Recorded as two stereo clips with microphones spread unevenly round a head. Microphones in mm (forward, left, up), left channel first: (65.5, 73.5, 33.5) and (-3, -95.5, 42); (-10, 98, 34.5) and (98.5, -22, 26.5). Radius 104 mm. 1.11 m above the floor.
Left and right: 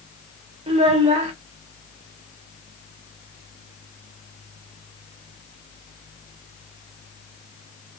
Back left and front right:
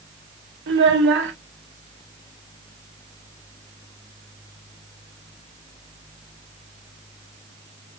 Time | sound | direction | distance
0.7 | a child speaking | 55° right | 1.6 m